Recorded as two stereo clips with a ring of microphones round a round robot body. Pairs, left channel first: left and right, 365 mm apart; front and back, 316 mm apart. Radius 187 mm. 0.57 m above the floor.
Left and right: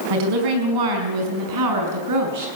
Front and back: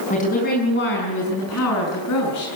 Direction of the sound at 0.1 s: 70° right.